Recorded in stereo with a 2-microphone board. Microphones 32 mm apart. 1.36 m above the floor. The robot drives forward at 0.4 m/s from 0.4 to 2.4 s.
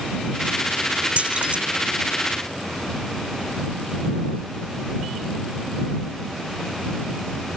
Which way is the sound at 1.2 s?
35° right (ahead or behind).